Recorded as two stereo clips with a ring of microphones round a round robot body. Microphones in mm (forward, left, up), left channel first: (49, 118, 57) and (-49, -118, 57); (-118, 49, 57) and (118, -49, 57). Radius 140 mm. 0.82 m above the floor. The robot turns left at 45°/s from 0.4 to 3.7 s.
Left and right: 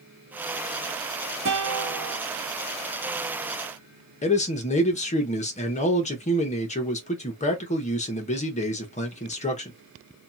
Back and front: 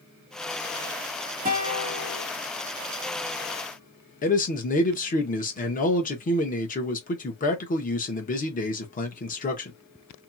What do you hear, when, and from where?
1.4 s a guitar: 70° right, 1.7 m; by 2.2 s 110° right, 1.7 m
4.2 s a man speaking: 115° left, 1.1 m